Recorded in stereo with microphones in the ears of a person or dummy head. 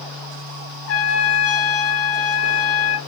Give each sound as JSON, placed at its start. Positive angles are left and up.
{"t": 0.9, "sound": "a trumpet", "side_deg": 65, "distance_m": 1.4}